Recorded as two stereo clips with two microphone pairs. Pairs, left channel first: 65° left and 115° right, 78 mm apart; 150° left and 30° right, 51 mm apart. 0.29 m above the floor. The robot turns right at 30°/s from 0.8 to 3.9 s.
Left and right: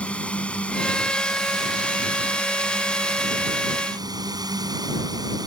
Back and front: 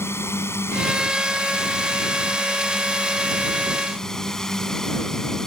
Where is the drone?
135° left; by 5.5 s 130° right.